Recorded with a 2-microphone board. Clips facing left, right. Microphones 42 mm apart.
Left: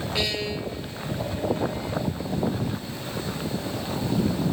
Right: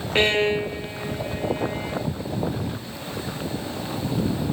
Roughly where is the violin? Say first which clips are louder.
Right 10 dB; right.